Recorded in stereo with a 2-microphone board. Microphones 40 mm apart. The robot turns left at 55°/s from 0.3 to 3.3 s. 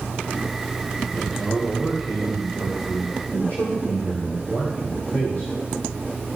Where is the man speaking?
170° right, 3.5 m; by 6.4 s 70° left, 3.5 m.